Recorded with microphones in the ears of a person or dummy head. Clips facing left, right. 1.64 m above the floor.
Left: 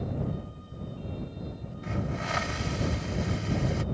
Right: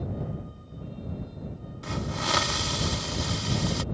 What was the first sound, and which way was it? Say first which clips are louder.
A hiss: right 1 dB; 60° right (ahead or behind).